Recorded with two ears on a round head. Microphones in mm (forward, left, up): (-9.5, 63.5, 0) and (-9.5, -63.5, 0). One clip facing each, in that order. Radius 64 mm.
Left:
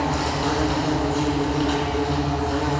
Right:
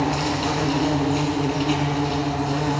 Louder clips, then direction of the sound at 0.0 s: Right 1 dB; 15° right (ahead or behind).